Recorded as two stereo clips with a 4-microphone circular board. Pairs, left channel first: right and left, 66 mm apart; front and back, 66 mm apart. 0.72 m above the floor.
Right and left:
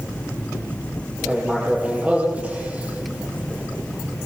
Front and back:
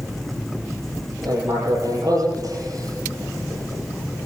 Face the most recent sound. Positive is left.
turn(degrees=165)